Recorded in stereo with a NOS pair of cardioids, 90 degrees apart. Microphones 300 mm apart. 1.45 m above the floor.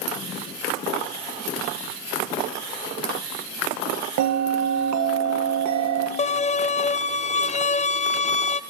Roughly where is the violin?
Ahead left.